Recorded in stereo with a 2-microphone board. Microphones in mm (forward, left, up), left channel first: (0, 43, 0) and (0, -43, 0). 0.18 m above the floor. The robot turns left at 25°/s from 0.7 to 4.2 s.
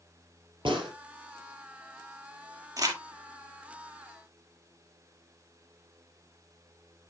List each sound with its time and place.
0.7 s a gunshot: 70° right (ahead or behind), 4.5 m; by 0.9 s 65° right (ahead or behind), 4.5 m
2.8 s crumpling: 40° right (ahead or behind), 2 m; by 3.0 s 50° right (ahead or behind), 2 m